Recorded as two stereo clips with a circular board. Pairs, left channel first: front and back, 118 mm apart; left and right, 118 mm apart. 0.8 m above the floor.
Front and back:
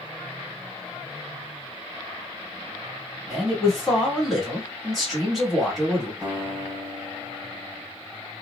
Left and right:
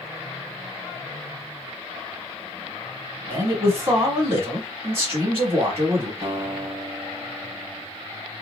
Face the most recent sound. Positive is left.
turn(degrees=-120)